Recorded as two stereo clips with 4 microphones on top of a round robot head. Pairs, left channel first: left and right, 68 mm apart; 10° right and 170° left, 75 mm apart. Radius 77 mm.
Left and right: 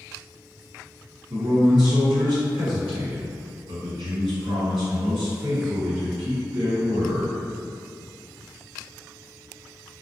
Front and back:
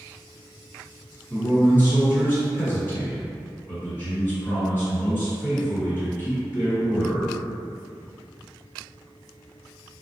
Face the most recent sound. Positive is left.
turn(degrees=-70)